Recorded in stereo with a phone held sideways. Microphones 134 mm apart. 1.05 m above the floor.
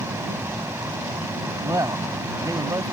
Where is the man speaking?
25° right (ahead or behind).